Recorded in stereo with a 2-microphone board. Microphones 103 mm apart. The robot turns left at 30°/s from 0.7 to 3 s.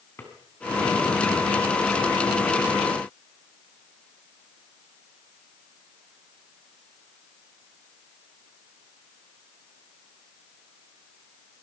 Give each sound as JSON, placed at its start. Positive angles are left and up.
{"t": 0.2, "sound": "a drawer", "side_deg": 20, "distance_m": 3.5}